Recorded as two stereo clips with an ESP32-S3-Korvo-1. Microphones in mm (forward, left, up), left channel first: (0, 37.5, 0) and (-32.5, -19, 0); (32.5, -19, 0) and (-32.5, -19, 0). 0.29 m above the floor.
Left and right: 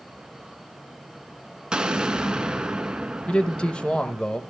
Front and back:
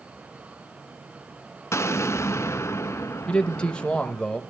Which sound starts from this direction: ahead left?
A man speaking, at 3.3 s.